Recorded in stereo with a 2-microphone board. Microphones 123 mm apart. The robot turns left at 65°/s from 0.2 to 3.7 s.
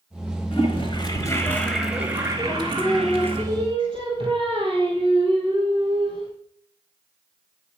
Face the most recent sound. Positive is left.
turn(degrees=-50)